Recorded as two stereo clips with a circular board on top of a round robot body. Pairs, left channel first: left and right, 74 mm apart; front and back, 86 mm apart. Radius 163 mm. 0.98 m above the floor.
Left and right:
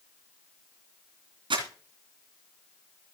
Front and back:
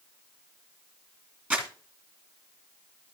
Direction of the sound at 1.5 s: 105° right.